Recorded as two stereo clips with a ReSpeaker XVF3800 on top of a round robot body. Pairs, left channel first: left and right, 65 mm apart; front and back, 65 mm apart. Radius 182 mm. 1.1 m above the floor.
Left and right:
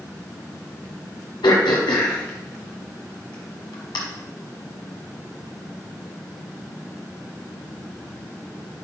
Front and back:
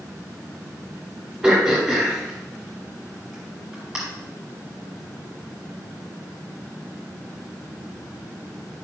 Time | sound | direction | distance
1.4 | throat clearing | 95° left | 1.3 m